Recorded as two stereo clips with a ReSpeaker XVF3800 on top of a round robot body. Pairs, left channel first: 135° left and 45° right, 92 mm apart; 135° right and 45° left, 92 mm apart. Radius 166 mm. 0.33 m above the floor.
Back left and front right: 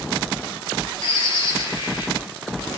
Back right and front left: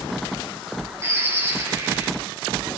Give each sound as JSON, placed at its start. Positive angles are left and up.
{"t": 1.0, "sound": "a bird", "azimuth_deg": 105, "distance_m": 6.0}